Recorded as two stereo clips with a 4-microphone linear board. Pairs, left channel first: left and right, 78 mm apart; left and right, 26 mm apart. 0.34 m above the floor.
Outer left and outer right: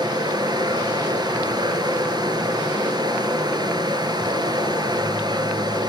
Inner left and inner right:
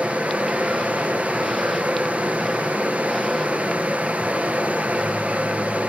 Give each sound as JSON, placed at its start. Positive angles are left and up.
{"t": 0.0, "sound": "running water", "side_deg": -70, "distance_m": 0.9}